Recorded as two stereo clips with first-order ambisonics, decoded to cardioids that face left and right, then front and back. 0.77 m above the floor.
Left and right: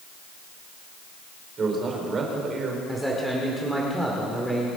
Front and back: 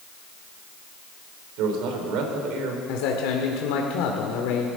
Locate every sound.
1.6 s a man speaking: 155° right, 3.5 m
2.9 s a man speaking: straight ahead, 1.7 m